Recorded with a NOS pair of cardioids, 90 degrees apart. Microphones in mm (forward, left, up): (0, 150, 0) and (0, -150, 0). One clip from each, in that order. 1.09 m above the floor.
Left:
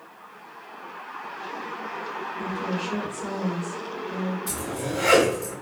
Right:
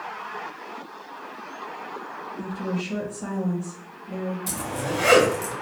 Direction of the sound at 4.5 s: 50° right.